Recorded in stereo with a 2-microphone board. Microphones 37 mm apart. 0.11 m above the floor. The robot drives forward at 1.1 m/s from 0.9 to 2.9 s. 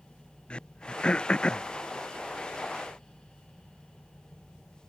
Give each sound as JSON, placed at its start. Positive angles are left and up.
{"t": 0.5, "sound": "throat clearing", "side_deg": 25}